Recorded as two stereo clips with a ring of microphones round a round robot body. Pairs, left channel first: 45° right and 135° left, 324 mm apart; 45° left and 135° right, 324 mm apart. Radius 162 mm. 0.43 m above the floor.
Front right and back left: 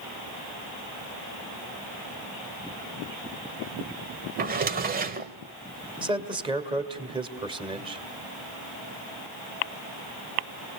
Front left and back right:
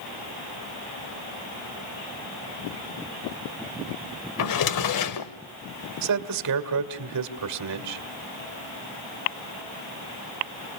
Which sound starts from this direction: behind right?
A man speaking, at 6.0 s.